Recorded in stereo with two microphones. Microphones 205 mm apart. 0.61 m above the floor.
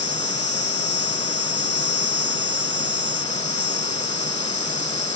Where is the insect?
60° left (ahead or behind).